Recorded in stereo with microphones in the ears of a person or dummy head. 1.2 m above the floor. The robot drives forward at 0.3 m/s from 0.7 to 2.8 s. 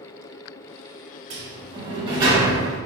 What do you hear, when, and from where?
1.3 s a sliding door: 35° right (ahead or behind), 0.6 m; by 2.8 s 20° right (ahead or behind), 0.9 m